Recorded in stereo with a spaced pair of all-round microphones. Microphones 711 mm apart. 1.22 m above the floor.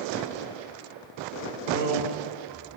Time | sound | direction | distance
1.7 | a man speaking | 70° right (ahead or behind) | 1.9 m